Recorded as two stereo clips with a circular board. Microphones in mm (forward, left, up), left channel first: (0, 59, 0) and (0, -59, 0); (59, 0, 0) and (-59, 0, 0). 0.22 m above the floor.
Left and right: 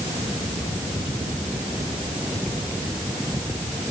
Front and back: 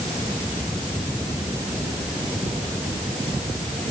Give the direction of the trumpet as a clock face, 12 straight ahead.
No trumpet in this recording.